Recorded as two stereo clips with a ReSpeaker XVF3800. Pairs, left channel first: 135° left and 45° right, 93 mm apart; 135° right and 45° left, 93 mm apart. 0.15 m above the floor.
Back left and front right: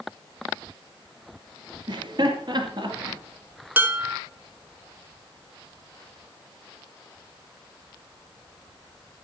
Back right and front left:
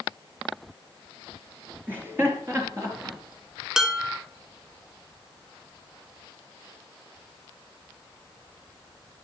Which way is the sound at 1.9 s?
20° right.